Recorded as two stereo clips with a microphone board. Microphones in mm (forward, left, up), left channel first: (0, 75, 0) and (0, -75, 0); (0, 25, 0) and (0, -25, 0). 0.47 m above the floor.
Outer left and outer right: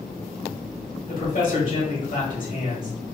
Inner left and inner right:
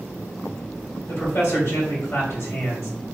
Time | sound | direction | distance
1.1 | a man speaking | 60° left (ahead or behind) | 1.7 m